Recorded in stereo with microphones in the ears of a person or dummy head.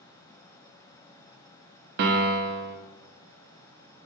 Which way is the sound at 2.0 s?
55° right (ahead or behind).